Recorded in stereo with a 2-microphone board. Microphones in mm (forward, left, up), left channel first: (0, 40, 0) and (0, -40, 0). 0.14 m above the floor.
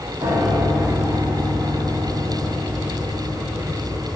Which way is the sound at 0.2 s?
80° right.